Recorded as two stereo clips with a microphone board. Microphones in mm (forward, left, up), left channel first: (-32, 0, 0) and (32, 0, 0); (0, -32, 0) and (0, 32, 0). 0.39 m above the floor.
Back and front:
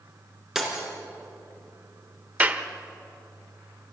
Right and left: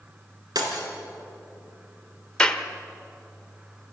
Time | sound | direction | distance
0.6 | breaking glass | 85° left | 3.5 m
2.4 | a clap | 30° right | 1.0 m